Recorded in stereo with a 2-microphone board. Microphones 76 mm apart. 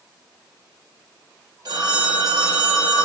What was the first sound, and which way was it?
A phone ringing, 75° right (ahead or behind).